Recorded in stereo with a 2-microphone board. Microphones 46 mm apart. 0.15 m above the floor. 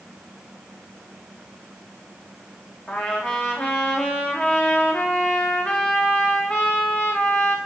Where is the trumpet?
30° left (ahead or behind), 5.5 m.